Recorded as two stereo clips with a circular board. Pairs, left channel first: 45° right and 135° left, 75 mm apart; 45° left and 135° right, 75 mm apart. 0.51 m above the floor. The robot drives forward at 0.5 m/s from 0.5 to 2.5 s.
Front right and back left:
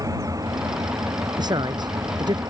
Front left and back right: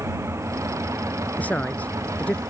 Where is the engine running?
175° left.